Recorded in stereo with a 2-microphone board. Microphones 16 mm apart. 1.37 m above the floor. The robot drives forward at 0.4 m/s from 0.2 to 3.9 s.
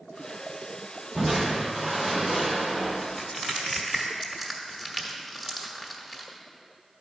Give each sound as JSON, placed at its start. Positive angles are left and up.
{"t": 1.1, "sound": "crushing", "side_deg": -5, "distance_m": 2.5}
{"t": 3.0, "sound": "crushing", "side_deg": 5, "distance_m": 1.2}